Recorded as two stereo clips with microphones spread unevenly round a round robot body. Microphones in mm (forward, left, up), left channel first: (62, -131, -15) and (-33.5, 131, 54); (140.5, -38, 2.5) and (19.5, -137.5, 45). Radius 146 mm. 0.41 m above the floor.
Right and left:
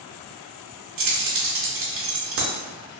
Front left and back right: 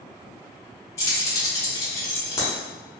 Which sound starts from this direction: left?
Keys jangling, at 1.0 s.